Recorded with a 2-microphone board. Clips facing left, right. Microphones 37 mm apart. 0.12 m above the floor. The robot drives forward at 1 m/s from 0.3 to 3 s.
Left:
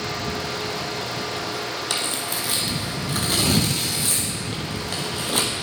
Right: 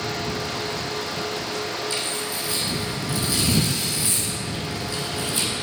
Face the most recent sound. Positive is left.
turn(degrees=60)  # may be behind; listen again after turning